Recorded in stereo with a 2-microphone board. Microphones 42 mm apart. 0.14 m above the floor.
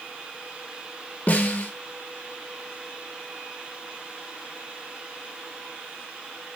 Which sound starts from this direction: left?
A snare drum, at 1.3 s.